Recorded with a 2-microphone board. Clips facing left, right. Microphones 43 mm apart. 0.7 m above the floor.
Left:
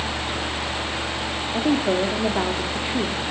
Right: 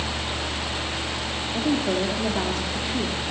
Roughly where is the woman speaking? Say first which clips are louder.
Left 3 dB; left.